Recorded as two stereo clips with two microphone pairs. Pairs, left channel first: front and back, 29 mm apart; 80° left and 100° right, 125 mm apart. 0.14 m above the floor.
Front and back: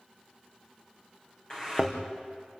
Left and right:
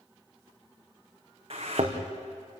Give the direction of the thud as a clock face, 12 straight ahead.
2 o'clock.